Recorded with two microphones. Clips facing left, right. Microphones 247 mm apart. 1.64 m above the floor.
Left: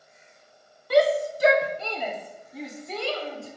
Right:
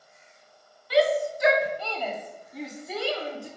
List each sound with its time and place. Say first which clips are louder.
0.9 s a shout: left 2 dB; 50° left (ahead or behind), 1.0 m; by 3.5 s 15° right (ahead or behind), 1.6 m